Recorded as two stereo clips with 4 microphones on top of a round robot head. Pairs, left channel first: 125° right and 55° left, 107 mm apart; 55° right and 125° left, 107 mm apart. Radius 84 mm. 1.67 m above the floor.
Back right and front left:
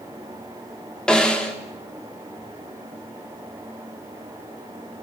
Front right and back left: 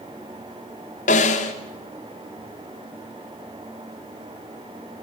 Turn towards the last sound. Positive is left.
turn(degrees=-45)